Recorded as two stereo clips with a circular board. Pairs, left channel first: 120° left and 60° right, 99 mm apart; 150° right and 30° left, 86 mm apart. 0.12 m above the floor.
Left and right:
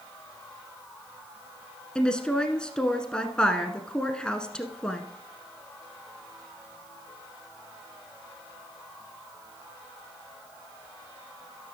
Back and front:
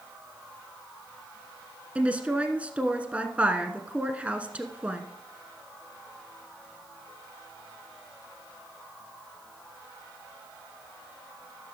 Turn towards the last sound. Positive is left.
turn(degrees=60)